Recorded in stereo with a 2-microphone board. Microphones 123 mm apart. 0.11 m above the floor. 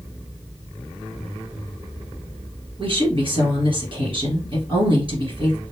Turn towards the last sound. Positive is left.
turn(degrees=-45)  # may be behind; listen again after turning